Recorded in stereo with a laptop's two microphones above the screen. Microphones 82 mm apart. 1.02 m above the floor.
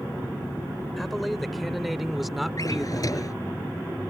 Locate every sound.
1.0 s a man speaking: centre (ahead or behind); by 3.3 s 5° right (ahead or behind)
2.6 s a drawer: 45° left (ahead or behind)